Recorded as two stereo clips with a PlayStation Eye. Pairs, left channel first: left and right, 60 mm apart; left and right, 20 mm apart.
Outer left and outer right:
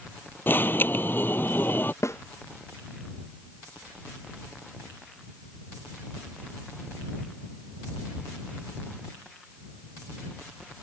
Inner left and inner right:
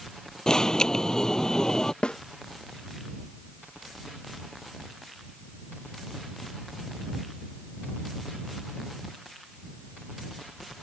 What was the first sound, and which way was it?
An alarm, 35° left (ahead or behind).